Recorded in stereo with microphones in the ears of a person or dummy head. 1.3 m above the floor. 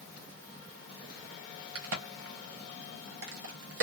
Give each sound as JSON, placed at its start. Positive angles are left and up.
{"t": 1.8, "sound": "a crack", "side_deg": -60, "distance_m": 0.9}